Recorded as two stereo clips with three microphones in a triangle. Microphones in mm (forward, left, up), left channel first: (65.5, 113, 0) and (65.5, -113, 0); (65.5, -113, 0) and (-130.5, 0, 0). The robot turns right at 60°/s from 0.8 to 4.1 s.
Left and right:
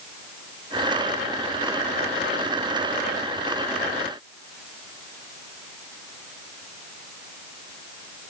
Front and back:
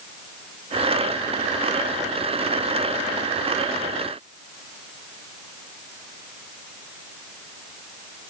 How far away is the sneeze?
No sneeze in this recording.